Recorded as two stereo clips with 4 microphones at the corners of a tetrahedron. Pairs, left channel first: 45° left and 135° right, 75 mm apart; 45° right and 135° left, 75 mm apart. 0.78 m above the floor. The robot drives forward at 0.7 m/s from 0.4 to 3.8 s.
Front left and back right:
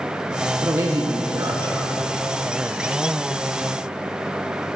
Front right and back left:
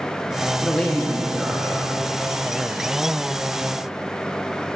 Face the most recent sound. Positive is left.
turn(degrees=-170)